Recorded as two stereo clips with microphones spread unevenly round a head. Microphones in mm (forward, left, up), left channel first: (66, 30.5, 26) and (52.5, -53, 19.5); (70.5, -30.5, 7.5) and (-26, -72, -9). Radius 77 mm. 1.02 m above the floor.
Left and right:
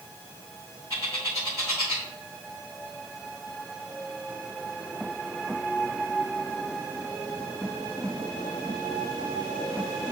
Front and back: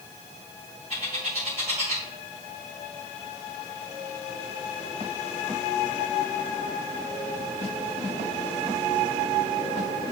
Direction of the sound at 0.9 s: 155° left.